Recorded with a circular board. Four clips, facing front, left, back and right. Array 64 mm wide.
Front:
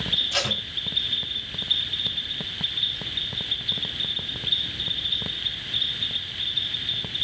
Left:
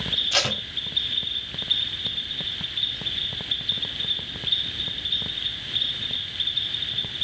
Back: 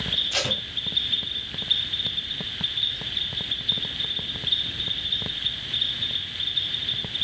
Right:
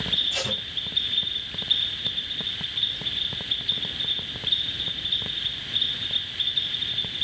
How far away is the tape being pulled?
About 1.0 m.